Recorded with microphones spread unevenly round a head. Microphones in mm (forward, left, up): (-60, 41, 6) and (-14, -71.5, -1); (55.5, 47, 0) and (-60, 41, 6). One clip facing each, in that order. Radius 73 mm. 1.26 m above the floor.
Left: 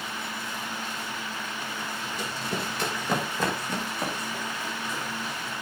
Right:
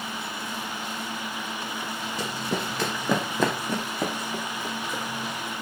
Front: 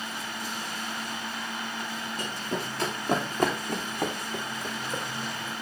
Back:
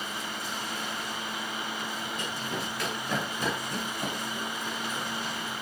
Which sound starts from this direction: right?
Running footsteps, at 2.2 s.